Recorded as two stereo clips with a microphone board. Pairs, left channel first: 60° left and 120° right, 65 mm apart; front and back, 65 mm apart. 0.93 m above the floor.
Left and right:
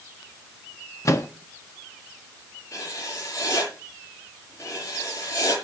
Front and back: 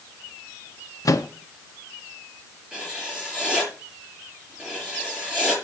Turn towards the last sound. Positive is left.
turn(degrees=105)